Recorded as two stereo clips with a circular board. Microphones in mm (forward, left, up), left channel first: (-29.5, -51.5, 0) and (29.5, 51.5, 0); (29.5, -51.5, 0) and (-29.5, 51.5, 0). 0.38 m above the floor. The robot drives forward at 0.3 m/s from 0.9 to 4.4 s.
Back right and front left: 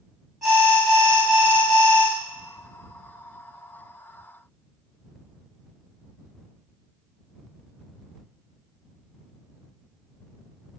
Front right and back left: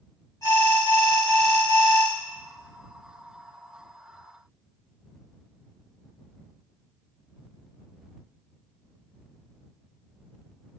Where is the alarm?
35° right, 1.6 m; by 2.1 s 55° right, 1.5 m.